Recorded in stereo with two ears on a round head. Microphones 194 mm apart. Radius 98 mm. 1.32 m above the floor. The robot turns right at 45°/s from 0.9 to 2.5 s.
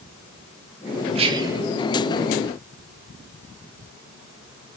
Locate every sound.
1.1 s whispering: 30° right (ahead or behind), 2.5 m; by 1.6 s 10° right (ahead or behind), 2.5 m